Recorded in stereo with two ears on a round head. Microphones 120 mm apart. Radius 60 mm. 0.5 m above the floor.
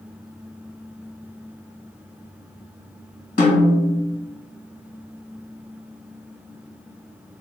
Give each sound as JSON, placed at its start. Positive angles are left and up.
{"t": 3.4, "sound": "a snare drum", "side_deg": 50, "distance_m": 1.6}